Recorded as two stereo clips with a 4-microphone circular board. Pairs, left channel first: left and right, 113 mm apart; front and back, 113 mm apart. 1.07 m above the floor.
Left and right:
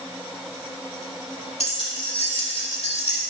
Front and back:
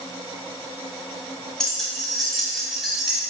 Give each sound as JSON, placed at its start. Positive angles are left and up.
{"t": 1.6, "sound": "keys jangling", "azimuth_deg": 85, "distance_m": 2.0}